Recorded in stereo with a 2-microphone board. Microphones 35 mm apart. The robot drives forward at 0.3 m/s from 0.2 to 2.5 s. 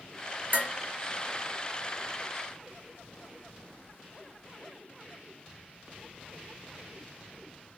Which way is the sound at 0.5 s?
70° right (ahead or behind).